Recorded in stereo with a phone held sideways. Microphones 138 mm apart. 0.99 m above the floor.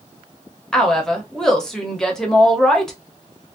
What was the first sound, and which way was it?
A woman speaking, 5° left (ahead or behind).